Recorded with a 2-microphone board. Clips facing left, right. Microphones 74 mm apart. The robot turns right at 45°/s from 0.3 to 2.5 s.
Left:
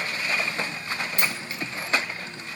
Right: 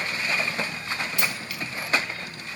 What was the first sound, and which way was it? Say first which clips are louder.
A dropped coin: left 1 dB; 50° left (ahead or behind).